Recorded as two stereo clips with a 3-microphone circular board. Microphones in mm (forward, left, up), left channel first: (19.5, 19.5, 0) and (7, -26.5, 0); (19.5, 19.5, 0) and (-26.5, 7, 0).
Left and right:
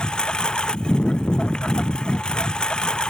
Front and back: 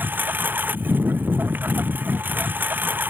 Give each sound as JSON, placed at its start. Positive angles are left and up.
{"t": 0.0, "sound": "a lawn mower", "azimuth_deg": 145}